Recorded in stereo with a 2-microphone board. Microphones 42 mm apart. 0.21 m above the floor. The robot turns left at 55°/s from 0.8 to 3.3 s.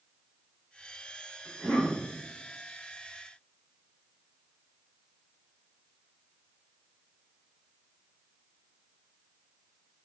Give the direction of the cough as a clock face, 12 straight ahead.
5 o'clock.